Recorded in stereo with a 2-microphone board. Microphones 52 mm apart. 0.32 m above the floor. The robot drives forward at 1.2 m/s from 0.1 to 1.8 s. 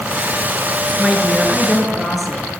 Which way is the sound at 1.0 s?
Centre (ahead or behind).